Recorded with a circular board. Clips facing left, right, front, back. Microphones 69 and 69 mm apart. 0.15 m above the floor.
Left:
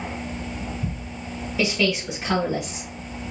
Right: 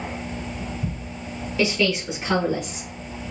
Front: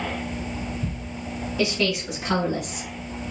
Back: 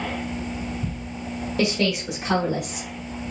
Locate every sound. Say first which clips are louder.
1.6 s a woman speaking: right 1 dB, back 1 dB; 170° left, 2.5 m; by 2.9 s 165° left, 4 m